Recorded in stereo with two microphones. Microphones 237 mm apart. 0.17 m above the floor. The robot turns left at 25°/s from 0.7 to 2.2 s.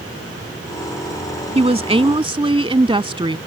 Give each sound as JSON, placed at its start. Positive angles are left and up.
{"t": 1.6, "sound": "a woman speaking", "side_deg": -25}